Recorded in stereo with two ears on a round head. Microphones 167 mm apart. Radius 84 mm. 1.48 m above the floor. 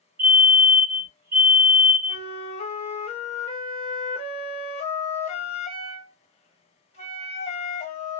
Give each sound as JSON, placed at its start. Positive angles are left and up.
{"t": 0.2, "sound": "a fire alarm", "side_deg": -50, "distance_m": 1.7}
{"t": 2.1, "sound": "a flute", "side_deg": 35, "distance_m": 1.0}